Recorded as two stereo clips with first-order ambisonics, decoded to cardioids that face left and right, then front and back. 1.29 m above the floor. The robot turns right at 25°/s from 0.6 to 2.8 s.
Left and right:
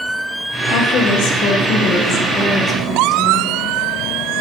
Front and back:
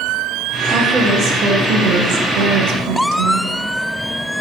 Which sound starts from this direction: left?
A woman speaking, at 0.7 s.